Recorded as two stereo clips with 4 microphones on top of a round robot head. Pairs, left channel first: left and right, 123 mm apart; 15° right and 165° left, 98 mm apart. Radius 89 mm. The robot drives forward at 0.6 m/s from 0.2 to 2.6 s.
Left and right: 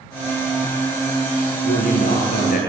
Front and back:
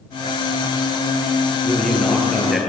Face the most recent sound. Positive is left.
turn(degrees=80)